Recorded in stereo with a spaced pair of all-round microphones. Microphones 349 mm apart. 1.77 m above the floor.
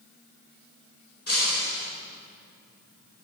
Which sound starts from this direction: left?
Breaking glass, at 1.3 s.